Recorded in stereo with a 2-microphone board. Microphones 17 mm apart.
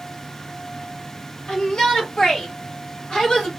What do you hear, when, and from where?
1.5 s a shout: 75° left (ahead or behind), 2.5 m; by 3.5 s 60° left (ahead or behind), 1.6 m